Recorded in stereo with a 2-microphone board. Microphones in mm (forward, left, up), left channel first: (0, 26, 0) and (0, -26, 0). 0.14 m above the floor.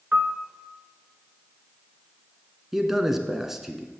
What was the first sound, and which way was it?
A piano, 25° right (ahead or behind).